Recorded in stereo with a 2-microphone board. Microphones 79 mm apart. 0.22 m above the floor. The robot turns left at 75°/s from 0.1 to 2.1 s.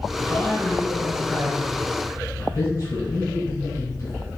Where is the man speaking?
160° right, 1.9 m; by 4.3 s 60° left, 1.9 m.